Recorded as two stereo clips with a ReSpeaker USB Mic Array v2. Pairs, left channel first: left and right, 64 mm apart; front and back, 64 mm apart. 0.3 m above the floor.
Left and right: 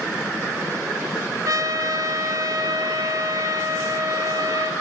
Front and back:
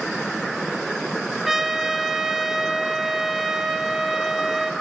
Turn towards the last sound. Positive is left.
turn(degrees=-95)